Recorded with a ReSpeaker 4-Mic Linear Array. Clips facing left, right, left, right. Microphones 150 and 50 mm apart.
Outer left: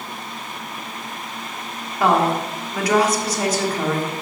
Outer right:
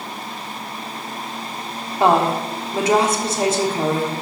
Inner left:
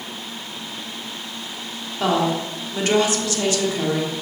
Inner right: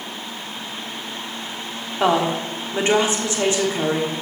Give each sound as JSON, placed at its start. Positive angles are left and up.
{"t": 2.0, "sound": "a woman speaking", "side_deg": -25, "distance_m": 1.4}